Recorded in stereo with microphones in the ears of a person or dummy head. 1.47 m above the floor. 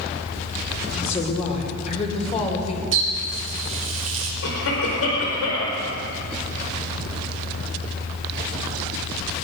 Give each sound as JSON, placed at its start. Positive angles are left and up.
{"t": 0.9, "sound": "a woman speaking", "side_deg": 40, "distance_m": 3.5}
{"t": 2.9, "sound": "a running tap", "side_deg": -35, "distance_m": 3.0}
{"t": 4.4, "sound": "a cough", "side_deg": 80, "distance_m": 4.5}